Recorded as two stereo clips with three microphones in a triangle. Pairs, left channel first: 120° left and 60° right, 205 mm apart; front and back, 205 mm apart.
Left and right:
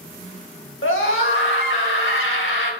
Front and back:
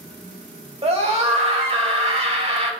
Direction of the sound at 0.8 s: 120° left.